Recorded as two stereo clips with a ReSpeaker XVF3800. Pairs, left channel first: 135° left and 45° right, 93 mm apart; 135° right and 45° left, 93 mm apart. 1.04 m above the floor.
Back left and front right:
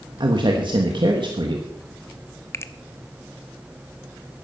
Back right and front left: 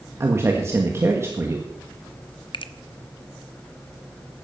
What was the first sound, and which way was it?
A man speaking, 15° right.